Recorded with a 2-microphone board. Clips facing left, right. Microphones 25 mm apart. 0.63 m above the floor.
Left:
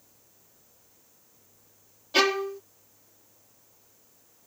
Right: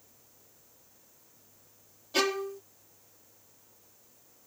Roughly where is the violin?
Left.